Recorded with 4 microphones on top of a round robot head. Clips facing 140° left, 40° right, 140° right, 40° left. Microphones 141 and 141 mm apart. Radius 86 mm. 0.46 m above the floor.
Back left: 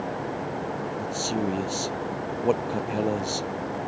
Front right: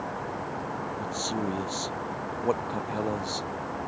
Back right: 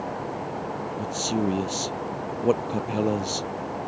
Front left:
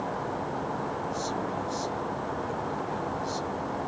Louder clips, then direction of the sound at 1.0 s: Back left 3 dB, back right 4 dB; 140° right.